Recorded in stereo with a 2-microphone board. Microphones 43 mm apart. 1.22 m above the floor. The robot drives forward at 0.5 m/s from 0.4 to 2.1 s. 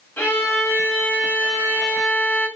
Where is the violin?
60° left (ahead or behind), 3.5 m; by 2.5 s 70° left (ahead or behind), 3 m.